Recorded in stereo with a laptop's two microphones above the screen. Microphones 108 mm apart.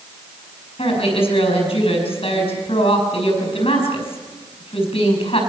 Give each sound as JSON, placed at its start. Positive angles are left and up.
{"t": 0.8, "sound": "a woman speaking", "side_deg": 60, "distance_m": 7.5}